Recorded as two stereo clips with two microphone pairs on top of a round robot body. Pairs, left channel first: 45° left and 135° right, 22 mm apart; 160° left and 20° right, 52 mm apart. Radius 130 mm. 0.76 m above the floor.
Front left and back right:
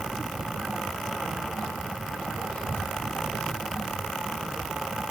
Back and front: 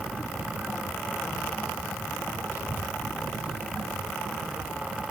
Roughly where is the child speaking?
Ahead left.